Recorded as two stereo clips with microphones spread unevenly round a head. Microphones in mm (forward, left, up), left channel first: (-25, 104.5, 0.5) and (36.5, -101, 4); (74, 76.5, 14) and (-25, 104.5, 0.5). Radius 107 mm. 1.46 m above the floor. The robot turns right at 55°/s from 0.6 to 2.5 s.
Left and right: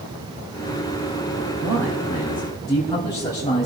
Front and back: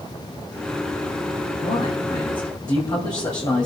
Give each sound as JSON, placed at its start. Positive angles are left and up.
{"t": 1.6, "sound": "a man speaking", "azimuth_deg": -15, "distance_m": 2.5}